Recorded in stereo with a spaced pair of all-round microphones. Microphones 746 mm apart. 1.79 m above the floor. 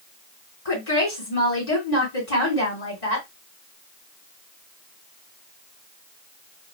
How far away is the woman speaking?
About 2 m.